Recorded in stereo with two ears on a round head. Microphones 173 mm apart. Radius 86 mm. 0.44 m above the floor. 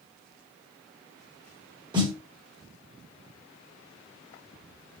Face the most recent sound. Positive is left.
turn(degrees=-25)  # may be behind; listen again after turning